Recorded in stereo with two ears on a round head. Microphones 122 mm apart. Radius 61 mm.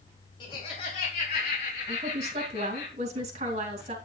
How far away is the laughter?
About 2.5 m.